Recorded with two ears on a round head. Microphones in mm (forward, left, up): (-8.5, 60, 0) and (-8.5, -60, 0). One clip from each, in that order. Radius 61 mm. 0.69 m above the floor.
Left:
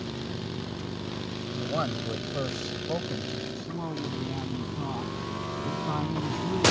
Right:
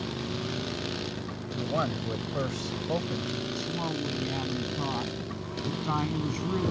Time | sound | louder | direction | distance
1.6 | a man speaking | right 1 dB | 5° left (ahead or behind) | ?
3.6 | a woman speaking | right 3 dB | 30° right (ahead or behind) | ?